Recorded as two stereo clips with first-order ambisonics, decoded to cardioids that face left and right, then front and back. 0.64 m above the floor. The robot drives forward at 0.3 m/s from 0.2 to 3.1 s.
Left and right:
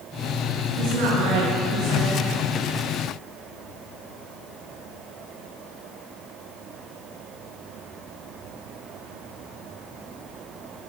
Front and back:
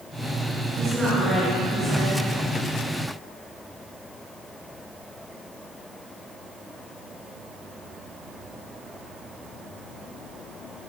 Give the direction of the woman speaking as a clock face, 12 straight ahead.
3 o'clock.